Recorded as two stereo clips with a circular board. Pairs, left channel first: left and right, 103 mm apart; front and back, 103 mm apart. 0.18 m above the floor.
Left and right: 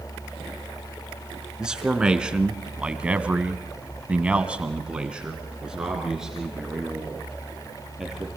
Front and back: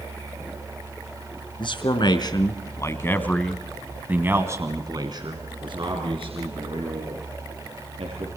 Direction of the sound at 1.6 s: 10° right.